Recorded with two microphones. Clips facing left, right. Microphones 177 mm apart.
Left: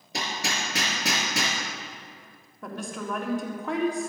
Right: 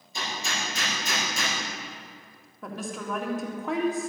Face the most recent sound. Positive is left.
turn(degrees=0)  # may be behind; listen again after turning